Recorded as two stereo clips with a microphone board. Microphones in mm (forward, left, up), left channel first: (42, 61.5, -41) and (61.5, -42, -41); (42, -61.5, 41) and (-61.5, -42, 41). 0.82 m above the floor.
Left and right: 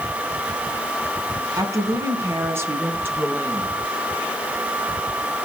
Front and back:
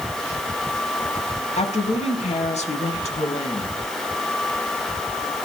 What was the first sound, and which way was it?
A woman speaking, 15° right.